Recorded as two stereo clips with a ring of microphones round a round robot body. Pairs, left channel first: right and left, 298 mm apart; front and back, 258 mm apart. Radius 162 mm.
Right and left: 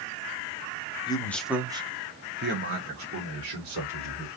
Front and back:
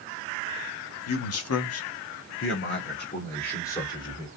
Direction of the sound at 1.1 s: 15° right.